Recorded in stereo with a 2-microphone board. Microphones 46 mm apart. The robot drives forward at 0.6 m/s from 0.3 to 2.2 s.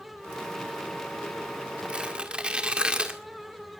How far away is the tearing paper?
About 1.8 m.